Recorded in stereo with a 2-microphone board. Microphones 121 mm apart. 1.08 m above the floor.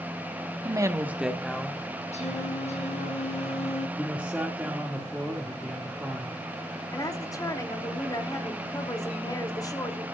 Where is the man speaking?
10° right (ahead or behind), 2.5 m.